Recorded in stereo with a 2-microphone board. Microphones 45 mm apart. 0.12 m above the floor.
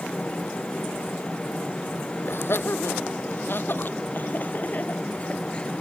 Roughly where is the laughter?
Left.